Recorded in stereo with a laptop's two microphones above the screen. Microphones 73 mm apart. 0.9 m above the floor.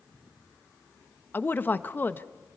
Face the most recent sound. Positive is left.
turn(degrees=25)  # may be behind; listen again after turning